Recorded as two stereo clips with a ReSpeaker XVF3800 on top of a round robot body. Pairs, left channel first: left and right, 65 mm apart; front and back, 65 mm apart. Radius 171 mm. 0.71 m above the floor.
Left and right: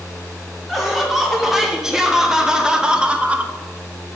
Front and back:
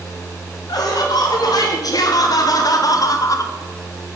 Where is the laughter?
5° right, 2.5 m; by 3.5 s 25° right, 1.0 m.